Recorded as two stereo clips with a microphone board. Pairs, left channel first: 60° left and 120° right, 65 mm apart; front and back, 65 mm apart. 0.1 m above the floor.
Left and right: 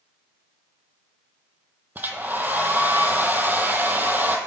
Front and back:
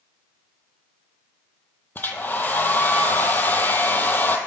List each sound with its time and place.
1.9 s a hair dryer: 60° right, 0.6 m